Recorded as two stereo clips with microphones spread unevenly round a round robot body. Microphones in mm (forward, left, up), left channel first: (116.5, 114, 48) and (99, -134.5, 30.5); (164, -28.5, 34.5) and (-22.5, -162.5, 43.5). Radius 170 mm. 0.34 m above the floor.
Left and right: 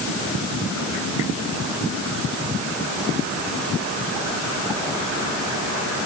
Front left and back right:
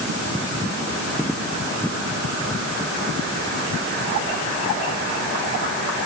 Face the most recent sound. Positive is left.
No sound to turn to.